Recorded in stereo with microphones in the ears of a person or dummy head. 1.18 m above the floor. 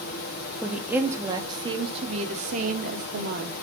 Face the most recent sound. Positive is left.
turn(degrees=-55)  # may be behind; listen again after turning